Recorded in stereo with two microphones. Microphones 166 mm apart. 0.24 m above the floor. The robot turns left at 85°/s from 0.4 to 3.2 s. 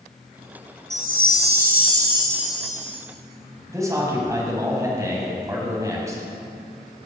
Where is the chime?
45° right, 1.6 m; by 3.0 s 140° left, 1.6 m.